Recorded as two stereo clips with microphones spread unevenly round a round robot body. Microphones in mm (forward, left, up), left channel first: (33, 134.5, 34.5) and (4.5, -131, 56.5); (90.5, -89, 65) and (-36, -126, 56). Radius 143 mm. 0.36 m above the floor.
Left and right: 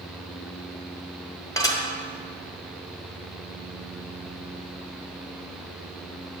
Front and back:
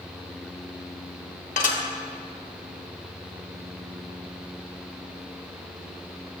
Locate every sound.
1.6 s dishes clattering: 10° left, 1.1 m